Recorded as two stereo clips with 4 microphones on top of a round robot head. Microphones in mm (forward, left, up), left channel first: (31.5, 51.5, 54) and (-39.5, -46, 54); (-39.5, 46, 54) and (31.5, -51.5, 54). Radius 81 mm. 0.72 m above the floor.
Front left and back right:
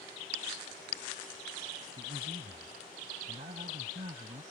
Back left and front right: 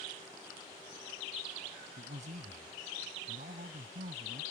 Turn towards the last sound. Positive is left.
turn(degrees=-80)